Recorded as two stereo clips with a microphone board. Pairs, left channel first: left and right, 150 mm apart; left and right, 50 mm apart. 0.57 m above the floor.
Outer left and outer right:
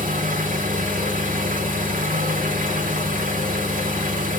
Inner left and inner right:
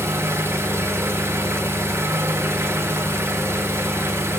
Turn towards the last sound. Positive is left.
turn(degrees=-65)  # may be behind; listen again after turning